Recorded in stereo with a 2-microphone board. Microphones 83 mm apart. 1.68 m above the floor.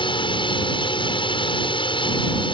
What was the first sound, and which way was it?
A drone, 75° left (ahead or behind).